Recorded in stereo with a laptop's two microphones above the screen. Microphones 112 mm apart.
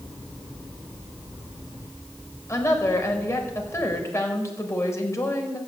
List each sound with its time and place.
2.5 s a woman speaking: 30° left (ahead or behind), 4.5 m